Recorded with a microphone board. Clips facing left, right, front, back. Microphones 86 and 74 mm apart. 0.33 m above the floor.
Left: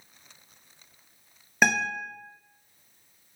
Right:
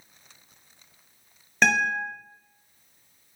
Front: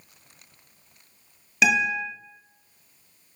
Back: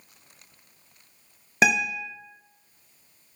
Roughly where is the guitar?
Behind.